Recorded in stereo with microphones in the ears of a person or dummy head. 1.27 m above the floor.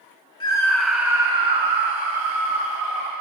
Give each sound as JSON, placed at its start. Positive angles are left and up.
{"t": 0.4, "sound": "a scream", "side_deg": 20, "distance_m": 1.5}